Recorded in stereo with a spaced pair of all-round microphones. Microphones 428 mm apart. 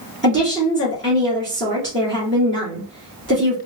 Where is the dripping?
I don't hear dripping.